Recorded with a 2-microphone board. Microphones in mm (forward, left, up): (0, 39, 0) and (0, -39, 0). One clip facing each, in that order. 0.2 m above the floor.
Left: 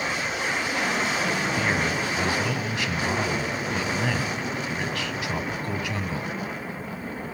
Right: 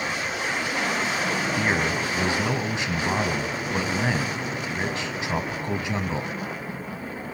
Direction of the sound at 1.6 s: 25° right (ahead or behind).